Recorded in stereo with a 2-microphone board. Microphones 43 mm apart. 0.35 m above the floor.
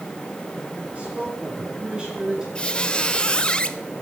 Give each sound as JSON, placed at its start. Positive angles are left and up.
{"t": 0.9, "sound": "a man speaking", "side_deg": -30, "distance_m": 5.5}
{"t": 2.5, "sound": "a squeak", "side_deg": 20, "distance_m": 0.6}